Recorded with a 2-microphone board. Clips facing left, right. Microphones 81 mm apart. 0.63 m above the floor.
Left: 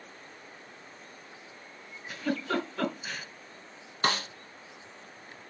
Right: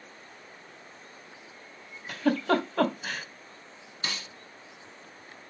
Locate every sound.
2.1 s a giggle: 65° right (ahead or behind), 2.5 m
4.0 s a snare drum: 50° left (ahead or behind), 0.7 m